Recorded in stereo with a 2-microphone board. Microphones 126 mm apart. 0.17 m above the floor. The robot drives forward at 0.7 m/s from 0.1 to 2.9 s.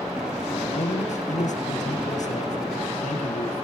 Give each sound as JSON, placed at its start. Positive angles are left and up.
{"t": 0.5, "sound": "a man speaking", "side_deg": 70, "distance_m": 4.0}